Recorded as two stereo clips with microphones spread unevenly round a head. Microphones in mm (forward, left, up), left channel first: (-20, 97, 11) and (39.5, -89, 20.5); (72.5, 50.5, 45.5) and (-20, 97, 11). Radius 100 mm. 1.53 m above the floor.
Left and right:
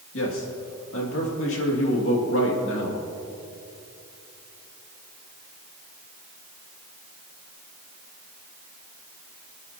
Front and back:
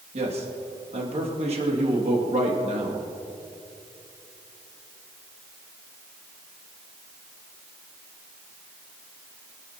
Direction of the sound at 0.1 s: 140° left.